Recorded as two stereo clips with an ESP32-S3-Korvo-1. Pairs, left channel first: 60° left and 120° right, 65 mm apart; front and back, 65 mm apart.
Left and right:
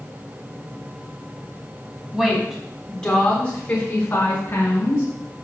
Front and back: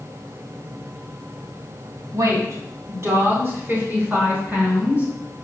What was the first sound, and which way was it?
A woman speaking, 155° left.